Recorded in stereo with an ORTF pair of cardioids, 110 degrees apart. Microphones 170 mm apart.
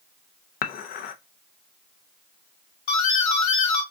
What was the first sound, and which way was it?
Dishes clattering, 60° left.